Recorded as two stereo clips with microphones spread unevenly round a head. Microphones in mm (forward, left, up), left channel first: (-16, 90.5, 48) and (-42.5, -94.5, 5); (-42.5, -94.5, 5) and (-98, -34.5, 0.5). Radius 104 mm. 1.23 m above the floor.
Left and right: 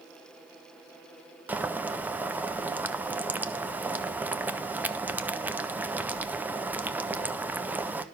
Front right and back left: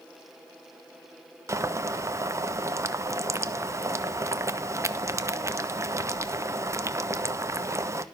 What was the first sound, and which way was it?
Boiling, 175° right.